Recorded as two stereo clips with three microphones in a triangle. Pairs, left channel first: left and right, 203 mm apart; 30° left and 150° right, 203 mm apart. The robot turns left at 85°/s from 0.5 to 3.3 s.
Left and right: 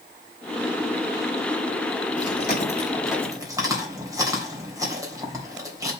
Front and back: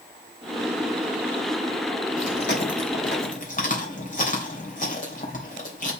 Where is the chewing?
80° left, 3 m; by 5.9 s 15° right, 3 m.